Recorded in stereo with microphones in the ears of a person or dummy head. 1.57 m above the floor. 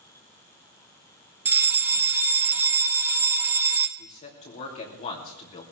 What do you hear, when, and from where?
1.4 s a fire alarm: 10° right (ahead or behind), 0.7 m
4.0 s a man speaking: 35° left (ahead or behind), 2.5 m